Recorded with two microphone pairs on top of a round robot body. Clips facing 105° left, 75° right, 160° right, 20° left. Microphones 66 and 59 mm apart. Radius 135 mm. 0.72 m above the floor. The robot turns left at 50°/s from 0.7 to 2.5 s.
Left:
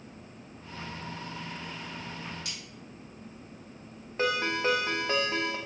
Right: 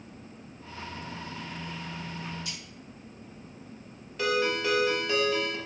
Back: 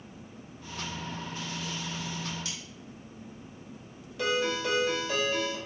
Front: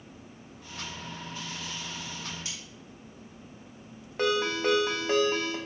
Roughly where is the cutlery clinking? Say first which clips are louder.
Right 1 dB, back 1 dB; left.